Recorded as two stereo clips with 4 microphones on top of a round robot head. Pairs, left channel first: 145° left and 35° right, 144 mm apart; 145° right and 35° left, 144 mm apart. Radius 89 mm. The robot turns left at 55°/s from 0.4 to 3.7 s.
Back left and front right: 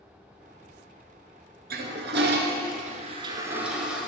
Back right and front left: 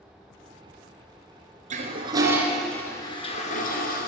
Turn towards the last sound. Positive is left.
turn(degrees=-120)